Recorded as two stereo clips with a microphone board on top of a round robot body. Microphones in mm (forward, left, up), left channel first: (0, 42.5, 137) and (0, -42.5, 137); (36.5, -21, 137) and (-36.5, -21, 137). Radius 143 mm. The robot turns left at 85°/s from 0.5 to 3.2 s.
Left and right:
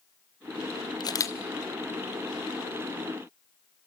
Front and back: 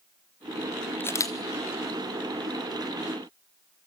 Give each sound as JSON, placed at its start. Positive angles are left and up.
{"t": 1.0, "sound": "a camera shutter", "azimuth_deg": 60, "distance_m": 1.7}